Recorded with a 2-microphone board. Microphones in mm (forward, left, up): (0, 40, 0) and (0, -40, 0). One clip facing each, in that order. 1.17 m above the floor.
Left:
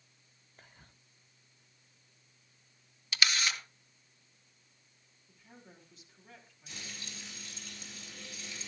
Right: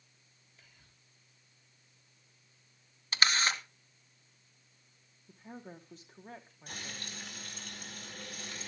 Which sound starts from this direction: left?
Whispering, at 0.6 s.